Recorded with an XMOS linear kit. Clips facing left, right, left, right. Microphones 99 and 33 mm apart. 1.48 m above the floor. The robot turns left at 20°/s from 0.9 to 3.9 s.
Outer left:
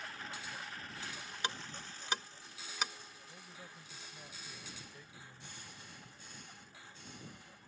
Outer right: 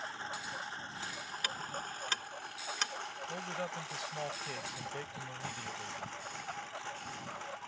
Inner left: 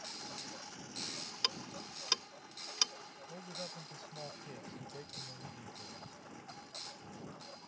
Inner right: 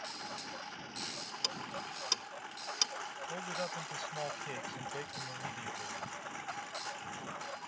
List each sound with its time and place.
0.0 s a lawn mower: 30° right; by 7.7 s 90° right
1.4 s ticking: 25° left (ahead or behind); by 2.9 s 5° left (ahead or behind)
3.3 s a man speaking: 80° right; by 6.0 s 90° right